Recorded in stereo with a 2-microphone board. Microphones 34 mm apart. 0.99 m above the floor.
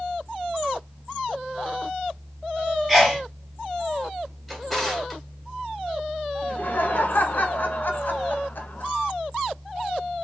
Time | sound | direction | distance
2.9 | a sneeze | centre (ahead or behind) | 0.5 m
4.5 | a drawer | centre (ahead or behind) | 1.8 m
6.4 | laughter | 60° left (ahead or behind) | 1.1 m